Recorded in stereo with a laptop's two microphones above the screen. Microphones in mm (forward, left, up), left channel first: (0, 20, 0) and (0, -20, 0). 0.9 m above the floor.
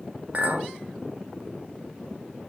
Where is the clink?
45° right (ahead or behind), 0.9 m.